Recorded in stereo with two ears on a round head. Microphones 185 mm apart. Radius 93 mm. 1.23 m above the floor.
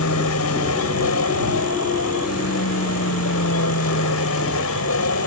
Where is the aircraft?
80° left; by 5.3 s 70° left (ahead or behind).